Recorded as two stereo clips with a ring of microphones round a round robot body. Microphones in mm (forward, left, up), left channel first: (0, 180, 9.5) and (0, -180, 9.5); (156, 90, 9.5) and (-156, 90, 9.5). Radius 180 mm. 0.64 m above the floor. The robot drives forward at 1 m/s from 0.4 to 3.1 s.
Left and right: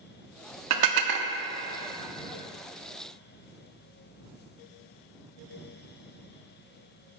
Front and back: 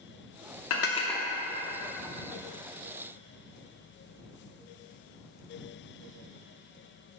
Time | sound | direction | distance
0.7 | dishes clattering | 45° right | 0.7 m